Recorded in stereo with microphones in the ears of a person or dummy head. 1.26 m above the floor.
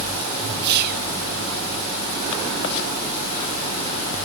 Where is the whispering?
55° right (ahead or behind), 1.5 m.